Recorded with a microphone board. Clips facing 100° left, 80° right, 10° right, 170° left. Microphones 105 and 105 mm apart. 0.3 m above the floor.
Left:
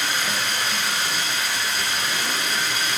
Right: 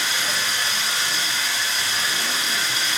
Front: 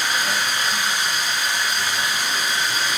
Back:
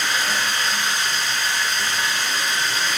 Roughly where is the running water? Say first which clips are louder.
Left 1 dB, even; ahead left.